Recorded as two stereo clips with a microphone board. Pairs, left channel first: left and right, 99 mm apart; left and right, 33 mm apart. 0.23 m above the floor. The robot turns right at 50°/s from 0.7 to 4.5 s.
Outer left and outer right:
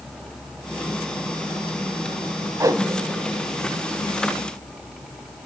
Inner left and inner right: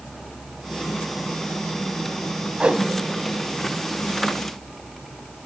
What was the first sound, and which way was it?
A whoosh, 35° right (ahead or behind).